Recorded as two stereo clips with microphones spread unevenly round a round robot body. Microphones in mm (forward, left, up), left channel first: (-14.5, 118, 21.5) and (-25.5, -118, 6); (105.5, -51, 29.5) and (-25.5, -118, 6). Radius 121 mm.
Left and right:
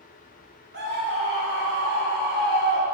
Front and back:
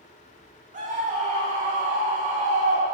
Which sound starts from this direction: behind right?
A scream, at 0.7 s.